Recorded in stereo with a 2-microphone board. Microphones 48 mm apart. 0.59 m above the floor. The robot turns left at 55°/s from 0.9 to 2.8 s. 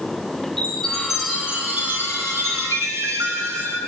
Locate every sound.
0.6 s a chime: 5° left, 6 m; by 3.8 s 100° right, 6 m